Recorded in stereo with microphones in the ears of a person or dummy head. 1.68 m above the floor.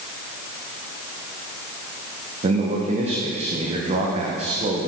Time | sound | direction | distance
2.4 | a man speaking | 35° right (ahead or behind) | 1.6 m